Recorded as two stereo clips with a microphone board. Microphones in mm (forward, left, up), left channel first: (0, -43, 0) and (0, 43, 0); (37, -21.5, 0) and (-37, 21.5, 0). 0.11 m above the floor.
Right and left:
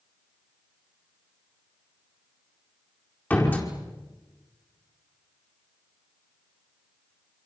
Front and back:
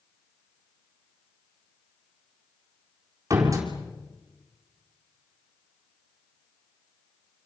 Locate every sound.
3.3 s a door slam: 160° right, 4 m